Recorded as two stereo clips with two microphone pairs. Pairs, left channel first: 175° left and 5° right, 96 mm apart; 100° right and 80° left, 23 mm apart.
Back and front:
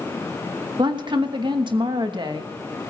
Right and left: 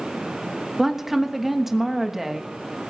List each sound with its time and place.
0.8 s a woman speaking: 5° left, 1.3 m